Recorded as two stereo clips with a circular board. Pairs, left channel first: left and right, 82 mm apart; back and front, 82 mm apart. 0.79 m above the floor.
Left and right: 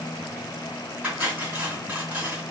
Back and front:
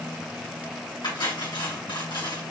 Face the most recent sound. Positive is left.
turn(degrees=-160)